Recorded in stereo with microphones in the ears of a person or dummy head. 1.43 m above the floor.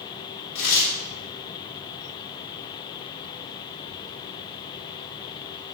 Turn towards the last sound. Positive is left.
turn(degrees=50)  # may be behind; listen again after turning